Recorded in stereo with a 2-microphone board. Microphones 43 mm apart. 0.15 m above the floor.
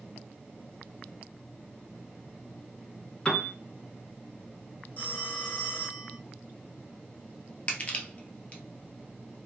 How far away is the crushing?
About 1.6 m.